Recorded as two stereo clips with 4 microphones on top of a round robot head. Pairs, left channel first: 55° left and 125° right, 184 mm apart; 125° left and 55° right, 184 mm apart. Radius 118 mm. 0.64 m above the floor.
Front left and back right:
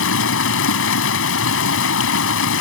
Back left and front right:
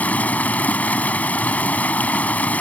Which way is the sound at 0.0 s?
45° left.